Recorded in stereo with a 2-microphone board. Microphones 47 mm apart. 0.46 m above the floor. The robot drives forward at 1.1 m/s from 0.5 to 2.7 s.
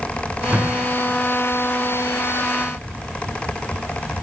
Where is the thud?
25° right (ahead or behind), 6.5 m; by 1.2 s 30° right (ahead or behind), 5.5 m.